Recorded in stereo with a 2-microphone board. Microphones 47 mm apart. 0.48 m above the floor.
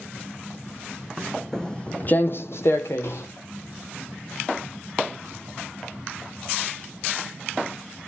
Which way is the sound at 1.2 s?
Centre (ahead or behind).